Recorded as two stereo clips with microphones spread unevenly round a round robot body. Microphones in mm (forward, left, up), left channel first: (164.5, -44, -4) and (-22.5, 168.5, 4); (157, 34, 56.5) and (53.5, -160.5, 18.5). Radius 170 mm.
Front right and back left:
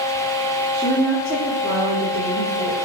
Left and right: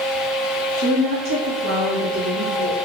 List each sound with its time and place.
0.7 s a woman speaking: 135° right, 1.9 m; by 2.8 s 170° right, 2.5 m